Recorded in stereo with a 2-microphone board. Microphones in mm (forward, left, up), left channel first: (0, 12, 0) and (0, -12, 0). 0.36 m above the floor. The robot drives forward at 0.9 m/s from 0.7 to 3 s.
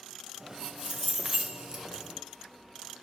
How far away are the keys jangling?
About 1.3 m.